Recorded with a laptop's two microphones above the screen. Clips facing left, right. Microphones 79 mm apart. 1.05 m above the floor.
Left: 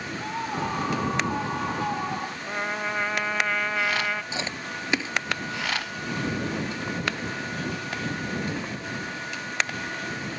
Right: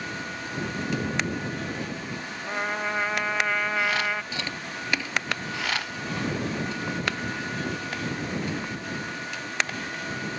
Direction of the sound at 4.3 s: 20° left (ahead or behind).